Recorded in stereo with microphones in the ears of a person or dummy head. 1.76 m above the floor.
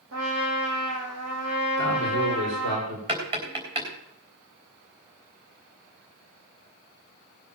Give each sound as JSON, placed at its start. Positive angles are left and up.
{"t": 0.1, "sound": "a trumpet", "side_deg": -70, "distance_m": 4.5}
{"t": 1.8, "sound": "a man speaking", "side_deg": -65, "distance_m": 6.5}
{"t": 3.1, "sound": "tapping", "side_deg": -20, "distance_m": 4.0}